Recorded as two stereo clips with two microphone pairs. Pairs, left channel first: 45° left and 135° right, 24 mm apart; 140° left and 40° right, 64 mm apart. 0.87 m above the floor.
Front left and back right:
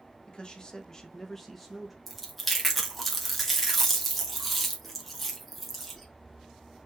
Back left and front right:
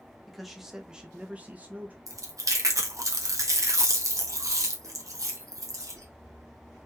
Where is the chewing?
45° right, 1.2 m.